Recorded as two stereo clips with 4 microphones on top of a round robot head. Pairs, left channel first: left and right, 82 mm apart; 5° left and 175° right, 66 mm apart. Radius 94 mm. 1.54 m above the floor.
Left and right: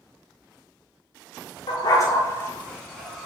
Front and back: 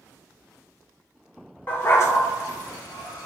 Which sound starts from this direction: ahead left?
A dog barking, at 1.7 s.